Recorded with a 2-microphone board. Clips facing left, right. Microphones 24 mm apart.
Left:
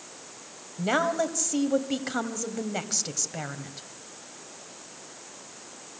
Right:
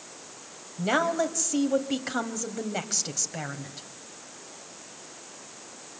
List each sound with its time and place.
0.8 s a woman speaking: centre (ahead or behind), 1.8 m